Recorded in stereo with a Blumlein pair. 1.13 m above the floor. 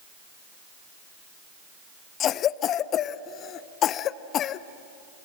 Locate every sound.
2.2 s a cough: 30° left, 0.6 m